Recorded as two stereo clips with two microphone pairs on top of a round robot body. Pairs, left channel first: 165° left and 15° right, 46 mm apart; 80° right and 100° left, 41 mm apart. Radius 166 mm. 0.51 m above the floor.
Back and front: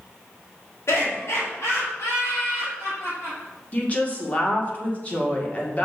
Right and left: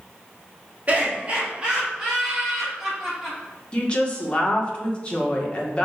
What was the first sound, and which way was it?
Laughter, 155° left.